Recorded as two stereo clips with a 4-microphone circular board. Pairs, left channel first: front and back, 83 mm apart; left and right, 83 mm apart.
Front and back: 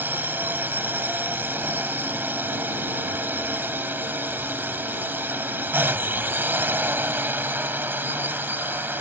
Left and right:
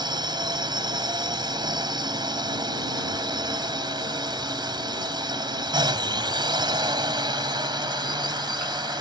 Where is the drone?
115° right.